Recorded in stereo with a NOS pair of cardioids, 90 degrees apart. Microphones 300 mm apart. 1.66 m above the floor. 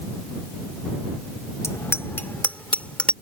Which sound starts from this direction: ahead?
A bicycle bell, at 1.6 s.